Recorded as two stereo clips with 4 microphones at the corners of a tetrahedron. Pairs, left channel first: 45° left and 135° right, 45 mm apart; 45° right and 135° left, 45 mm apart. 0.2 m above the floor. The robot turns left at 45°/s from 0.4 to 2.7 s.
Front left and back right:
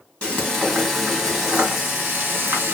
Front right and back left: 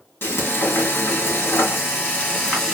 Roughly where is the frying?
Ahead.